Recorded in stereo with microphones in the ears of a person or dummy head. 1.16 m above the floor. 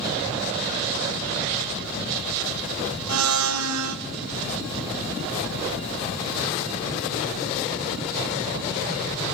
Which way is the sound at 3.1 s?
85° right.